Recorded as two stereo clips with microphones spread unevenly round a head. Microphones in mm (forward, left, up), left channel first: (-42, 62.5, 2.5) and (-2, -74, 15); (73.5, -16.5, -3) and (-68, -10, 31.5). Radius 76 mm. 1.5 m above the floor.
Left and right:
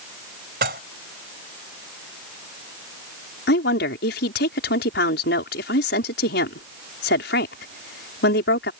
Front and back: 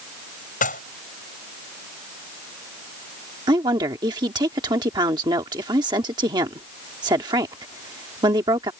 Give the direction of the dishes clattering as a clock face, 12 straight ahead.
1 o'clock.